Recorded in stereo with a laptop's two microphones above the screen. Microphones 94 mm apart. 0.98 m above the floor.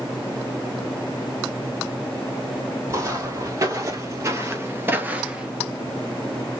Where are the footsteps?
35° right (ahead or behind), 2 m; by 5.5 s 10° right (ahead or behind), 1.0 m.